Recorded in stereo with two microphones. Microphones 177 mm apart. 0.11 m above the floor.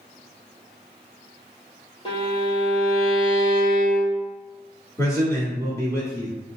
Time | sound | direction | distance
2.0 | a violin | 25° left (ahead or behind) | 1.8 m
5.0 | a man speaking | 15° left (ahead or behind) | 1.5 m